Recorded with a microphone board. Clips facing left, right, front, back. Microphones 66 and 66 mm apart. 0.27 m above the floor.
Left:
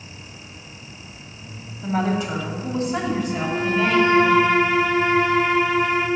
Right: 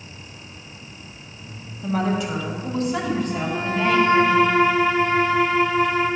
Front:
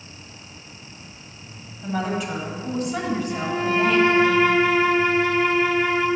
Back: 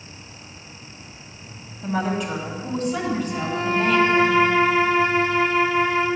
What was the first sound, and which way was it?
A woman speaking, 90° left.